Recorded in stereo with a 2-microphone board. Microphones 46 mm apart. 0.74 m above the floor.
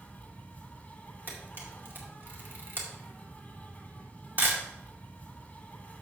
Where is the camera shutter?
45° right (ahead or behind), 2 m.